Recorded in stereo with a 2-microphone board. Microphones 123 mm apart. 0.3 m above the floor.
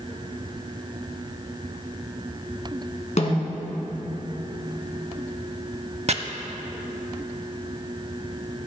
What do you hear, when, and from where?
3.2 s a snare drum: 65° left (ahead or behind), 1.9 m
6.1 s chopping: 55° right (ahead or behind), 0.5 m